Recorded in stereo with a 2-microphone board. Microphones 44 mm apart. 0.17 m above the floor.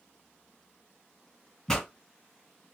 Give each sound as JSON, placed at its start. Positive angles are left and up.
{"t": 1.7, "sound": "a pop", "side_deg": 15, "distance_m": 1.4}